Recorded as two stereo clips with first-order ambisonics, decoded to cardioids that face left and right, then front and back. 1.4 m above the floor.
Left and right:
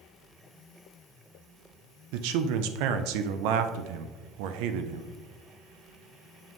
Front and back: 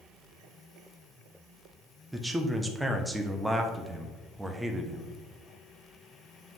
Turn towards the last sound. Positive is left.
turn(degrees=-95)